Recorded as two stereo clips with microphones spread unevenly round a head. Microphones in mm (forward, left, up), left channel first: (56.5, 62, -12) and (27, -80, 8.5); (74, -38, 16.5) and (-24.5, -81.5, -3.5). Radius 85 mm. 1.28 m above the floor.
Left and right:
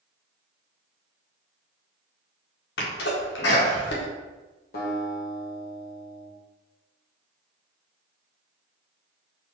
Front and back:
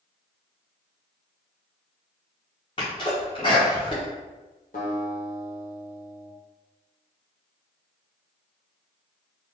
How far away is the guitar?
About 1.2 m.